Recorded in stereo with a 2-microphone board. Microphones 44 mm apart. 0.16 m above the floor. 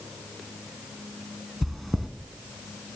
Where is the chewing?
Centre (ahead or behind), 0.6 m.